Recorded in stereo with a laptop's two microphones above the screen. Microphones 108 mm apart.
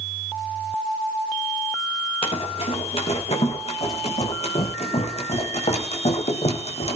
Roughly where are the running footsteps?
Left.